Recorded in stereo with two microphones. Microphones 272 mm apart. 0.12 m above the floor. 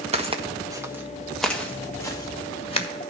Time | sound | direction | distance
0.1 | footsteps | 25° right (ahead or behind) | 1.5 m